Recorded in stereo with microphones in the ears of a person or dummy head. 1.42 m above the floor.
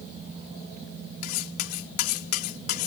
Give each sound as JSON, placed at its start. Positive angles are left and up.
{"t": 1.2, "sound": "cutlery clinking", "side_deg": 60}